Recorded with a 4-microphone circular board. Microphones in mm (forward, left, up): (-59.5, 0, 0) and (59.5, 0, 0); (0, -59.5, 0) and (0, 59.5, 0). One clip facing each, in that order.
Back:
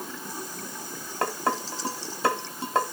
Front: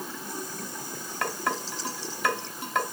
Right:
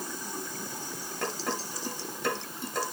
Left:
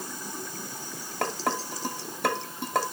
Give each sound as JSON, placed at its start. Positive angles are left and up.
{"t": 1.2, "sound": "dishes clattering", "azimuth_deg": 120, "distance_m": 2.0}